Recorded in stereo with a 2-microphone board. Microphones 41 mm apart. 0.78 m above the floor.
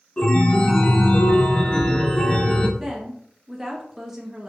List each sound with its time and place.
0.2 s a chime: 30° left (ahead or behind), 0.8 m
2.8 s a woman speaking: 10° right (ahead or behind), 0.7 m